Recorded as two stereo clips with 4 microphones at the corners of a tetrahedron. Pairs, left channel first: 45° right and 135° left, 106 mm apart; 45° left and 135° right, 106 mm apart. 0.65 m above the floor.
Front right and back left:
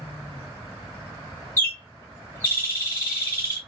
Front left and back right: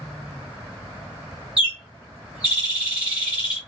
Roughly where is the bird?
Right.